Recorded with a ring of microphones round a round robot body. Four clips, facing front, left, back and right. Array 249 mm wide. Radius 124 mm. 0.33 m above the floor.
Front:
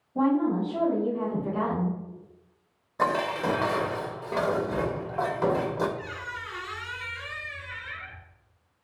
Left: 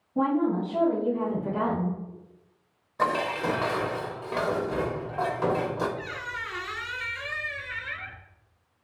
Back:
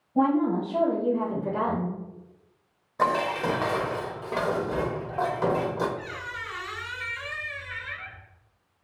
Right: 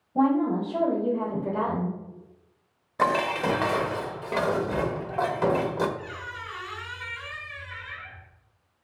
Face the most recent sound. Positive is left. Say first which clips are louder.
# left 2 dB, even
turn(degrees=95)